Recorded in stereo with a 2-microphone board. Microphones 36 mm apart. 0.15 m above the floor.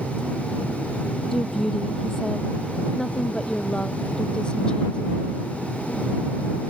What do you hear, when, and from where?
1.3 s a woman speaking: 5° left (ahead or behind); by 5.5 s 30° left (ahead or behind)